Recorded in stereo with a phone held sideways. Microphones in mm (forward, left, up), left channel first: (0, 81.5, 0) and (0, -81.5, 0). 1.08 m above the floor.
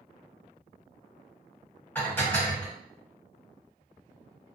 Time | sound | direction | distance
1.9 | dishes clattering | 10° left (ahead or behind) | 1.2 m